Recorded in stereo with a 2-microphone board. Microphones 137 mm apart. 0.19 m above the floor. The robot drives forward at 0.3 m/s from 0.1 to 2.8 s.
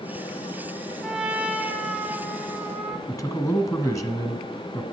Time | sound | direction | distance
1.0 | a trumpet | 5° right (ahead or behind) | 1.3 m
3.1 | a man speaking | 25° left (ahead or behind) | 1.3 m